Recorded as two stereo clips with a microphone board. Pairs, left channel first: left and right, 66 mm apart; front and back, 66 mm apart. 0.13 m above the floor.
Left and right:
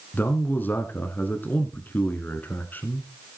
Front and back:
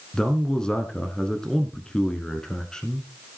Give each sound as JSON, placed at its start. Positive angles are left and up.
{"t": 0.1, "sound": "a man speaking", "azimuth_deg": 65, "distance_m": 1.2}